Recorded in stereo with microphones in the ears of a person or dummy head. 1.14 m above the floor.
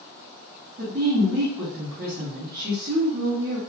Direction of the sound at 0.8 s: 45° right (ahead or behind).